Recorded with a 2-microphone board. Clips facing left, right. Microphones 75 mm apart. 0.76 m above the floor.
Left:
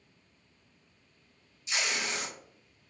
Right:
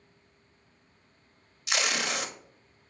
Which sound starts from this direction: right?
Tape being pulled, at 1.7 s.